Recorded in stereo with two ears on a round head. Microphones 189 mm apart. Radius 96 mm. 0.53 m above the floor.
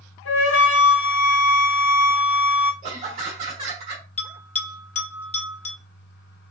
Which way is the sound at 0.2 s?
70° left (ahead or behind).